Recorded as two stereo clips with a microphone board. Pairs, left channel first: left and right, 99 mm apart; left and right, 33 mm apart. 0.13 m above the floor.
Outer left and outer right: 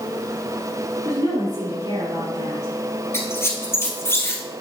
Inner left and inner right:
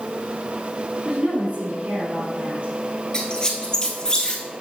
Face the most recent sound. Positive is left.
turn(degrees=25)  # may be behind; listen again after turning